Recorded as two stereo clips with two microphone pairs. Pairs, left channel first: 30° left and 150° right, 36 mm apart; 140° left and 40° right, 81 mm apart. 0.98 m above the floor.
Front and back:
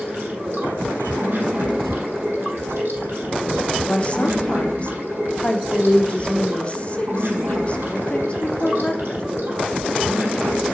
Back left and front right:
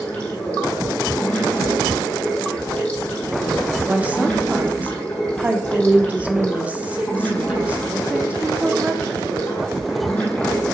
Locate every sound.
0.0 s running water: 145° right, 4 m
3.9 s a woman speaking: 20° left, 0.9 m